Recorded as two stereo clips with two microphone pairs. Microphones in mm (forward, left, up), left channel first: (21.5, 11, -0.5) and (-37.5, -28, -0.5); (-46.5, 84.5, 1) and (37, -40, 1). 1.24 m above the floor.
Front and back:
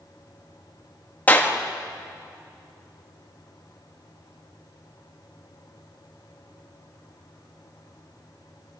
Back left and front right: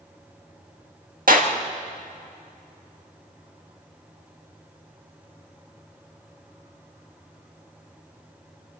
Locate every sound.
1.3 s a clap: 35° right, 1.6 m